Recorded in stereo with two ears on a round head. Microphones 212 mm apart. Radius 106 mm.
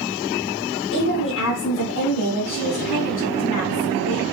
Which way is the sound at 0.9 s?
55° left (ahead or behind).